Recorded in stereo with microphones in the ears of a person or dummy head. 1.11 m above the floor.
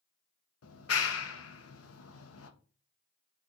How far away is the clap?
About 1.2 m.